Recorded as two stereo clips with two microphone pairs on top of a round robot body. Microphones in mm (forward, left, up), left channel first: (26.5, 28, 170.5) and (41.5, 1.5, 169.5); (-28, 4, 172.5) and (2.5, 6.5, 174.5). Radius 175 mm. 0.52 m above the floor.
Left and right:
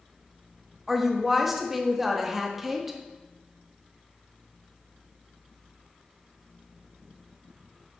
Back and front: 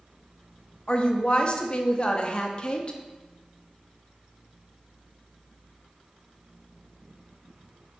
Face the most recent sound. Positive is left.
turn(degrees=-135)